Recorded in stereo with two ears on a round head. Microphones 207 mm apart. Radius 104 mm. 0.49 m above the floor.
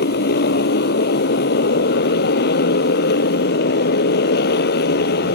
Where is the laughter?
I don't hear laughter.